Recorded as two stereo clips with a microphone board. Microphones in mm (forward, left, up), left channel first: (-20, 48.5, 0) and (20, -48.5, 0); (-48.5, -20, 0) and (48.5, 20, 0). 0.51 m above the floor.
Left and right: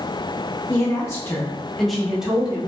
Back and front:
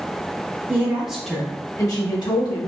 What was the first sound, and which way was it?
A woman speaking, 80° left.